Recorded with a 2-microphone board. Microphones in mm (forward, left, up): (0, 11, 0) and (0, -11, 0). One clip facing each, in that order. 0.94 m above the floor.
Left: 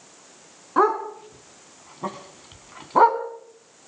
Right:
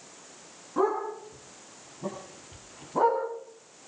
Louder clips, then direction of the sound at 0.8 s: Left 7 dB; 65° left (ahead or behind).